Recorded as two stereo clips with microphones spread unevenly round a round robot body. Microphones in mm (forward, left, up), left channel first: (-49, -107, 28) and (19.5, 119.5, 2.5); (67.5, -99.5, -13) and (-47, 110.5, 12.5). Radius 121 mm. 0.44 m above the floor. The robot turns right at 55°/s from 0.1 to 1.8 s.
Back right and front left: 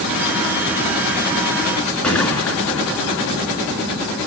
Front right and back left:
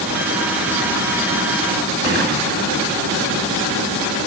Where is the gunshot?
165° left, 4 m.